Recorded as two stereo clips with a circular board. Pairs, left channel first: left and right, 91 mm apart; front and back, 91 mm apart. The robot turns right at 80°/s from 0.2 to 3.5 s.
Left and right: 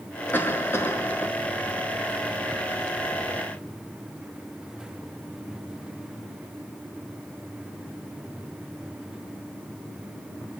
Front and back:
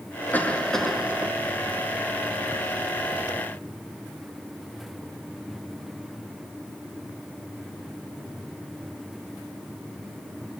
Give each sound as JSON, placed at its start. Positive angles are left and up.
{"t": 0.3, "sound": "a cough", "azimuth_deg": 50, "distance_m": 1.6}